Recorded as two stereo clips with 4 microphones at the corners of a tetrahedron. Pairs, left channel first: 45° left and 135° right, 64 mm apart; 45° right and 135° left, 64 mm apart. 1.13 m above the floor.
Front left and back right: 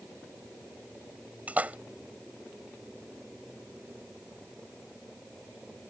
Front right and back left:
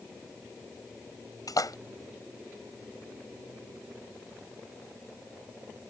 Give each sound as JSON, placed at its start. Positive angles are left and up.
{"t": 1.5, "sound": "a splash", "azimuth_deg": -70}